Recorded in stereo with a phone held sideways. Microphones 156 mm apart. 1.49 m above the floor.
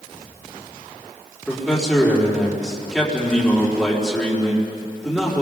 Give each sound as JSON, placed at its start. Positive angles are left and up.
{"t": 1.5, "sound": "a man speaking", "side_deg": 0, "distance_m": 4.5}